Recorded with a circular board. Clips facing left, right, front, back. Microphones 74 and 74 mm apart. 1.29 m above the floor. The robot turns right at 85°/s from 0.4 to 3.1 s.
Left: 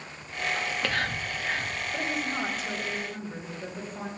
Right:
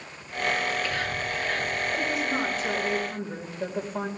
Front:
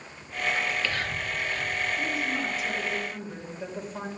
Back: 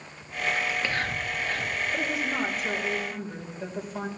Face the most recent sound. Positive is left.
turn(degrees=-95)